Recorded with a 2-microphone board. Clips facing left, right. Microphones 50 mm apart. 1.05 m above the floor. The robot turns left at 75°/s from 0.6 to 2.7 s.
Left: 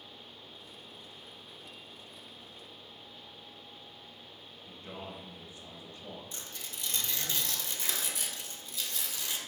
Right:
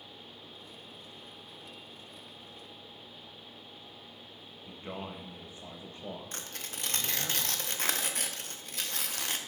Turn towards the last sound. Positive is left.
turn(degrees=-55)  # may be behind; listen again after turning